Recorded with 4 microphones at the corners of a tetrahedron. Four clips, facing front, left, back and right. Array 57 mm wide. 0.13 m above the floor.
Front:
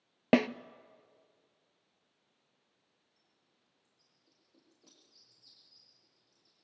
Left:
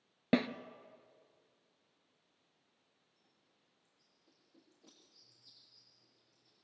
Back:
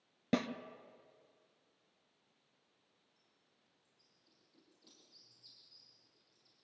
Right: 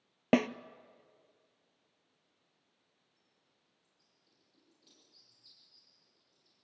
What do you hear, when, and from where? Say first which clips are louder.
0.3 s a snare drum: right 4 dB, front 9 dB; 25° right, 0.6 m
3.2 s a bird: left 1 dB, even; 35° left, 7 m